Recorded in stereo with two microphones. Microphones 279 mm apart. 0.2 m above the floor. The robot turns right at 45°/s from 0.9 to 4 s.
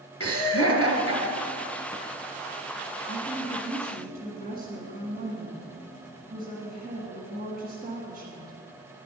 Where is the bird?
No bird in this recording.